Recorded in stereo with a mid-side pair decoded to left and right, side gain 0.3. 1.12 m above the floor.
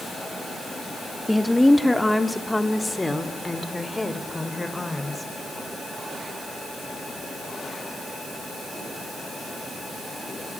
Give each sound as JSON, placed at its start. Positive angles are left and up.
{"t": 1.3, "sound": "a woman speaking", "azimuth_deg": 10, "distance_m": 2.5}